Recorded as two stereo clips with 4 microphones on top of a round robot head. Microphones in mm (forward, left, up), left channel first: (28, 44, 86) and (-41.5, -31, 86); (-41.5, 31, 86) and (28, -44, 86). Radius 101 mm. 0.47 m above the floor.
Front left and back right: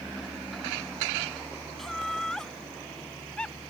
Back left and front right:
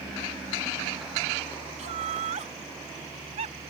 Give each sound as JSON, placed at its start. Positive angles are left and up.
{"t": 1.8, "sound": "laughter", "azimuth_deg": -40}